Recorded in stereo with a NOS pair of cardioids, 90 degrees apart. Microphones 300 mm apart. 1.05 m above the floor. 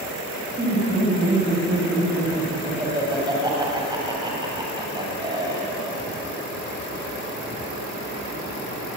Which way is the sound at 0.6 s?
15° right.